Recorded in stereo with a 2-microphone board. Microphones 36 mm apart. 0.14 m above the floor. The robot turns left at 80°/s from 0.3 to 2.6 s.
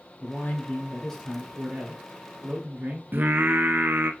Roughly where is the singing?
Right.